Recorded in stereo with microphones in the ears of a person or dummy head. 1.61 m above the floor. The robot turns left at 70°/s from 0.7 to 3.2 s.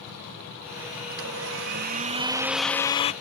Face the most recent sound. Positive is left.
turn(degrees=140)